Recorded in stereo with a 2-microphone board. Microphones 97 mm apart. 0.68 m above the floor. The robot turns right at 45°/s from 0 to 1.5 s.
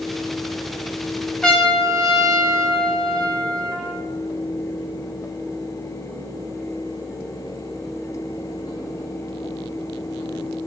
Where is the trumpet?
10° left (ahead or behind), 0.7 m; by 4.0 s 5° left (ahead or behind), 0.7 m.